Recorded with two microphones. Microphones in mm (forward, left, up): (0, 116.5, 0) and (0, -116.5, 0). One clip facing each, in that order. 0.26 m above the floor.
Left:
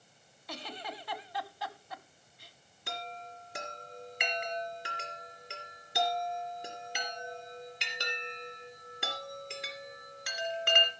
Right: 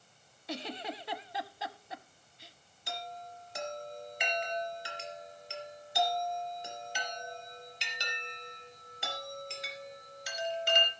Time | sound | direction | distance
0.5 | a giggle | 25° right (ahead or behind) | 0.7 m
2.9 | a chime | 70° left (ahead or behind) | 2.5 m